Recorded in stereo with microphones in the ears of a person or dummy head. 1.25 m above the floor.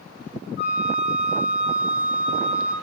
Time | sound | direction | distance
0.6 | a flute | 65° left (ahead or behind) | 4 m